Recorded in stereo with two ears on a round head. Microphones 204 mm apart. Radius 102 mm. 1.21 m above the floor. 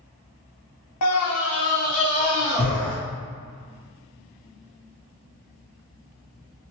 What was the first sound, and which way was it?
A scream, 85° left.